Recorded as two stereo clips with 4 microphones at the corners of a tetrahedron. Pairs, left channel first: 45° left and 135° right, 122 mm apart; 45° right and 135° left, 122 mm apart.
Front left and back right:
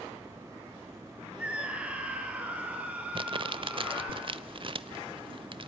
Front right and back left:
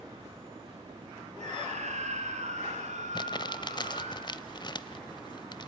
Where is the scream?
145° left, 5 m; by 4.2 s 150° left, 6 m.